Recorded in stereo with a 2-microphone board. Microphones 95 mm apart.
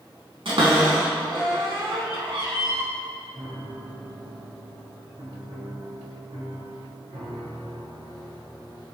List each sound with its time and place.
0.5 s a cupboard door: 70° right (ahead or behind), 4 m
3.3 s a piano: 60° right (ahead or behind), 4 m